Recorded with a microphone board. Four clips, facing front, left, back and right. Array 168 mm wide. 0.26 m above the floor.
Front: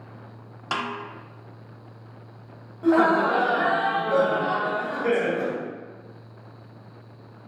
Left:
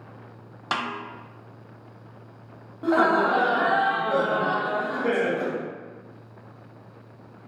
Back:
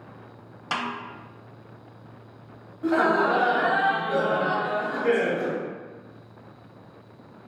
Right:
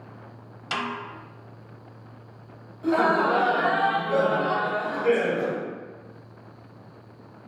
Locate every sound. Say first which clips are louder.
0.7 s a snare drum: left 1 dB, front 1 dB; 80° left, 0.6 m
2.8 s laughter: left 1 dB, front 2 dB; 60° left, 1.0 m